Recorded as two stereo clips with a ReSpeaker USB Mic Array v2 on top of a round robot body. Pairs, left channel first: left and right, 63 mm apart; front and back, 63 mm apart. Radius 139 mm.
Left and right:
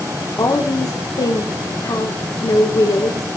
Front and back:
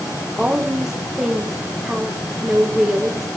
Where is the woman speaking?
100° left, 2.5 m.